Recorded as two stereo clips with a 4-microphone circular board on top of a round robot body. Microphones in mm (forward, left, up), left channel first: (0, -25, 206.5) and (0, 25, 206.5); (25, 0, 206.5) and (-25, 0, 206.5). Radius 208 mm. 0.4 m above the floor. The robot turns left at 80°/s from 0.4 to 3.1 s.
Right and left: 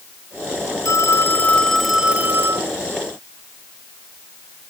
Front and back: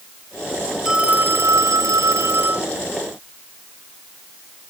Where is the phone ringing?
100° right; by 2.7 s 115° left.